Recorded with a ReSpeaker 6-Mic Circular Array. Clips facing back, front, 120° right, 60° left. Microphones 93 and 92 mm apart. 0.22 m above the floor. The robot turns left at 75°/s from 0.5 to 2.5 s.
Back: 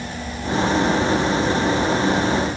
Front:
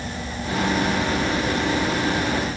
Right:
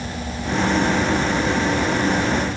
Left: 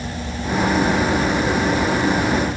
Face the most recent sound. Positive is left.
No sound to turn to.